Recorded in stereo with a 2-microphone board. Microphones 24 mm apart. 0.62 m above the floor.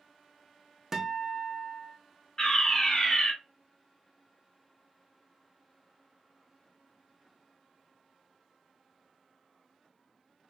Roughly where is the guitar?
Right.